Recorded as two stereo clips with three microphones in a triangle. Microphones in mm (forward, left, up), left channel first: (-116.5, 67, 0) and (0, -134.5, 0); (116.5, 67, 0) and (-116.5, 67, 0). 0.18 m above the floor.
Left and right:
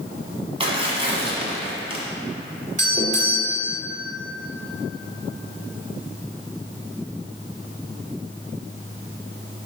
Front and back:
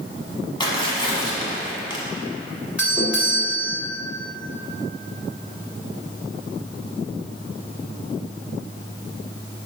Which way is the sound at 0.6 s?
40° right.